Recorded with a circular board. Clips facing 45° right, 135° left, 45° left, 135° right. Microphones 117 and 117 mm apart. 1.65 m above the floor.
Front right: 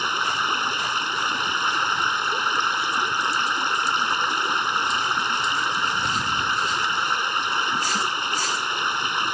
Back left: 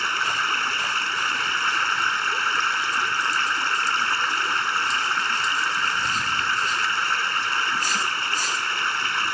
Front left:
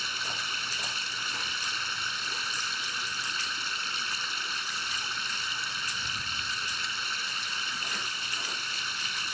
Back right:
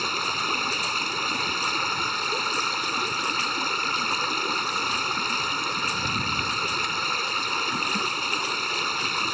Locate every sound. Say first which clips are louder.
0.0 s running water: front right 1 dB, back right 9 dB; 115° right